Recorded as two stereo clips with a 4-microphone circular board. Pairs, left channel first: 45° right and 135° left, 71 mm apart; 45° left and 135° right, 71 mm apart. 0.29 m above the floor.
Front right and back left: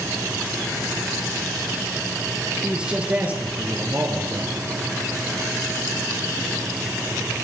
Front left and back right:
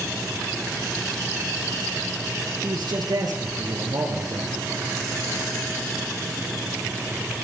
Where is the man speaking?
145° right, 5 m; by 4.6 s 170° right, 6.5 m.